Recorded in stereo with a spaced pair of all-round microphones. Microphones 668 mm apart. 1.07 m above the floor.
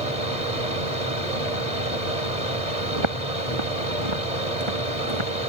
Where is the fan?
70° right (ahead or behind).